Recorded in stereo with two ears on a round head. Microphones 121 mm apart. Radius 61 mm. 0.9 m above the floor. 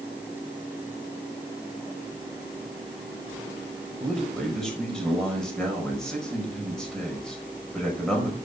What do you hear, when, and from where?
4.0 s a man speaking: 5° left (ahead or behind), 5.5 m